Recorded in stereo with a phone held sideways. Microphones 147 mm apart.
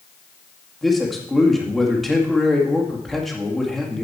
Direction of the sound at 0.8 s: Centre (ahead or behind).